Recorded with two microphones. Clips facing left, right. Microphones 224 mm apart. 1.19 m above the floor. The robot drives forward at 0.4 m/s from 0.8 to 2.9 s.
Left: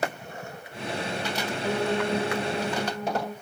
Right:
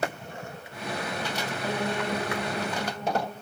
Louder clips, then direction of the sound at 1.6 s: Left 4 dB; 15° right (ahead or behind).